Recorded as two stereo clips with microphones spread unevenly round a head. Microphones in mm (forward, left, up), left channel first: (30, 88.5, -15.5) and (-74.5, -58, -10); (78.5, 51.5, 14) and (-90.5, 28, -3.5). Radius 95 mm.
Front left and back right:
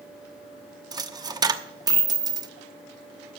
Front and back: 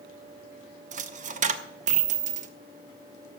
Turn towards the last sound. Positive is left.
turn(degrees=-175)